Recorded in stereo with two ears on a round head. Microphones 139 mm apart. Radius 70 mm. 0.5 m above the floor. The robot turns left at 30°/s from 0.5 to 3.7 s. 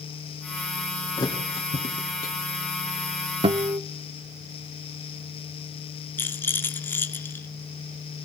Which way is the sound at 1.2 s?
25° left (ahead or behind).